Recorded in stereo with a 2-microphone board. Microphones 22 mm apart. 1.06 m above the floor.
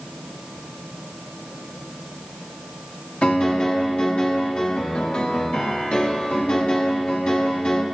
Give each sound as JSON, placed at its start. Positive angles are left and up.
{"t": 3.2, "sound": "a piano", "side_deg": 75, "distance_m": 2.5}